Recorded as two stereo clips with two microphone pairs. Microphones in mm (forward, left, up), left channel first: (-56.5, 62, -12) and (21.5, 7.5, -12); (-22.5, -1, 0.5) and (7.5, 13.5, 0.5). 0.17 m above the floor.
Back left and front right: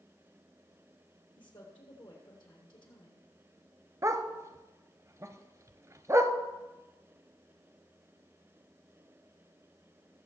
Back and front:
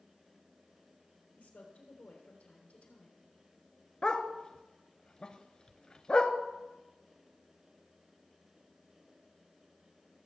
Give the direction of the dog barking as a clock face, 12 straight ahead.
3 o'clock.